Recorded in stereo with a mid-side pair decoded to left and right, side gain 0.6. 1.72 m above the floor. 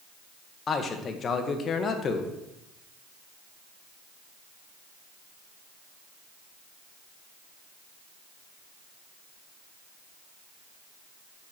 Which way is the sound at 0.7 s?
40° left.